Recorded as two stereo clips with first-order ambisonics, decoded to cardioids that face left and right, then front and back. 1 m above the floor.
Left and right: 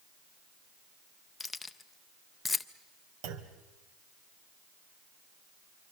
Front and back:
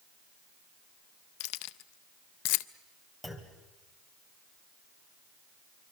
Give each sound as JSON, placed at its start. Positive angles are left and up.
{"t": 1.4, "sound": "keys jangling", "azimuth_deg": 10, "distance_m": 0.5}
{"t": 3.2, "sound": "a clunk", "azimuth_deg": -90, "distance_m": 1.8}